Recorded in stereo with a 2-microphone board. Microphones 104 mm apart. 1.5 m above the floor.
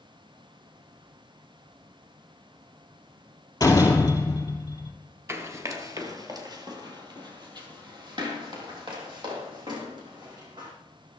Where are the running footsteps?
25° right (ahead or behind), 1.6 m; by 10.7 s 45° right (ahead or behind), 5 m.